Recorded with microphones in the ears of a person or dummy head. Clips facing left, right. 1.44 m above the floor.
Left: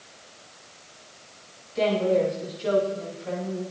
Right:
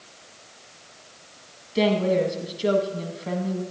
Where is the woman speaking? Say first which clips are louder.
Right 1 dB; 55° right (ahead or behind), 1.9 m.